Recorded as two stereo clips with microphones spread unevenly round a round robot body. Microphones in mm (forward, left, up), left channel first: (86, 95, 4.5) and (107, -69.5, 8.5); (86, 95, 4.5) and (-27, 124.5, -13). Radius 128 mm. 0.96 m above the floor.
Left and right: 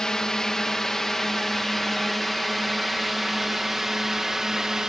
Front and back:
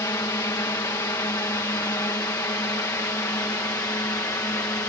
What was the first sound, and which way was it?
A drone, 15° left.